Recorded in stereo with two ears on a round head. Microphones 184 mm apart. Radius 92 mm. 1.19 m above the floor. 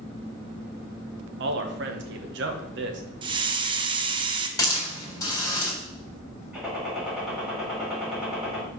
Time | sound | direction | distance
1.4 | a man speaking | 60° right (ahead or behind) | 1.2 m
3.2 | a hiss | 25° right (ahead or behind) | 0.7 m
4.6 | a hiss | 15° left (ahead or behind) | 3.5 m
6.5 | a gunshot | 5° right (ahead or behind) | 3.5 m